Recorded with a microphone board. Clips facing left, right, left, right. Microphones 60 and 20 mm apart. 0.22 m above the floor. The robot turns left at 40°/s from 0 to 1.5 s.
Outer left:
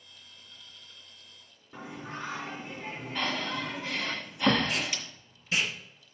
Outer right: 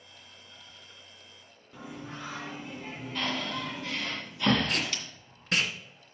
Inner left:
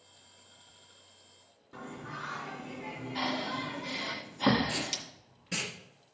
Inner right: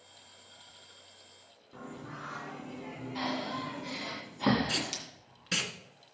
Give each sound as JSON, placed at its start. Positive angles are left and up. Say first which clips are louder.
{"t": 1.7, "sound": "singing", "louder": "outer left 2 dB, inner left 2 dB", "side_deg": 30, "distance_m": 1.9}
{"t": 3.1, "sound": "breathing", "louder": "outer left 1 dB, inner left 1 dB", "side_deg": 15, "distance_m": 2.0}
{"t": 4.7, "sound": "tape being pulled", "louder": "outer right 1 dB, inner right 1 dB", "side_deg": -65, "distance_m": 2.0}